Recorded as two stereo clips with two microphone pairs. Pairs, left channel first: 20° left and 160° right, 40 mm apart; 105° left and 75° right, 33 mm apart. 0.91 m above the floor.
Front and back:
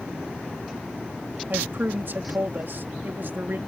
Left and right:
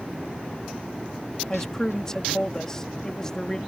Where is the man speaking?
175° left.